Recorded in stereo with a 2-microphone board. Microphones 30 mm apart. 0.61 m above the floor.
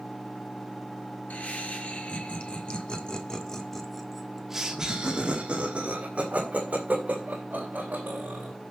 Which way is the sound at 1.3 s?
55° left (ahead or behind).